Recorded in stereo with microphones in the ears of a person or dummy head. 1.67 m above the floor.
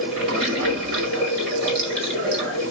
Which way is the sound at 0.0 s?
50° right (ahead or behind).